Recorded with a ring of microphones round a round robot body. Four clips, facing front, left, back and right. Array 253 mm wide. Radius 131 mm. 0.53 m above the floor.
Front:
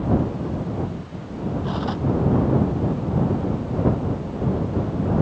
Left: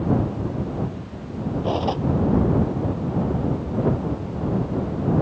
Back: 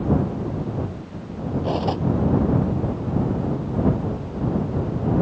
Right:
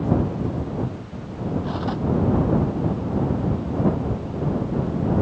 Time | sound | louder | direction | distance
1.6 | cutlery clinking | left 3 dB, back 6 dB | 130° left | ?